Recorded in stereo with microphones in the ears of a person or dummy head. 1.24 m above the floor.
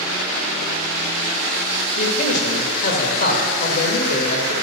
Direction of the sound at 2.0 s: 55° left (ahead or behind).